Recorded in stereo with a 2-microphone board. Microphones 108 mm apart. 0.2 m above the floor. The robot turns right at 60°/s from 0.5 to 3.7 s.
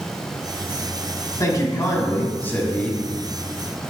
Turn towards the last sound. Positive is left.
turn(degrees=-140)